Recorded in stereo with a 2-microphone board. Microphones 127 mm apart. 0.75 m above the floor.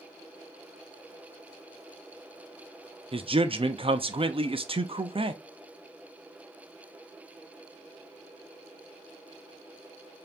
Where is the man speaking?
45° right (ahead or behind), 0.6 m.